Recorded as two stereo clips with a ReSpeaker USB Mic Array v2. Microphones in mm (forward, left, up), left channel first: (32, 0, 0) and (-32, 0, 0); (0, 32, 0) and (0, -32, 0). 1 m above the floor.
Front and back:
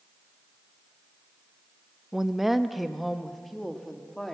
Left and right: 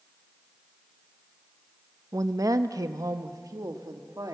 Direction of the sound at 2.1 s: 100° right.